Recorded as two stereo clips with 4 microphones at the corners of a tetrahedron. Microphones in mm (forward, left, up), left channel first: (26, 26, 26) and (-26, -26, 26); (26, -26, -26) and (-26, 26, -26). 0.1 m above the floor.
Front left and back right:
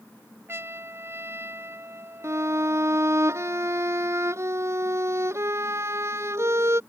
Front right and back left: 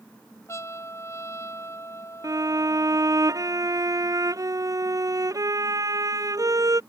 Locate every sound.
0.5 s a trumpet: 85° right
2.2 s a violin: 175° left